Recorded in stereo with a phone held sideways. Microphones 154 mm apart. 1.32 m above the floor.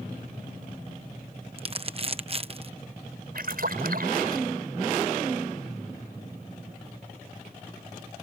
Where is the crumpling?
40° right (ahead or behind).